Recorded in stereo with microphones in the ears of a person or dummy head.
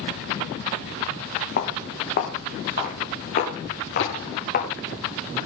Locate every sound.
1.6 s footsteps: 60° left (ahead or behind), 4 m
4.0 s a thud: 80° left, 8 m